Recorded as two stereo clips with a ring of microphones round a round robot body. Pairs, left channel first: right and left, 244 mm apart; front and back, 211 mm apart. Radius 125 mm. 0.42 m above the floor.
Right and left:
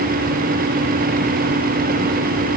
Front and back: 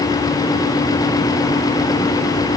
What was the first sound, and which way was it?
Only background noise.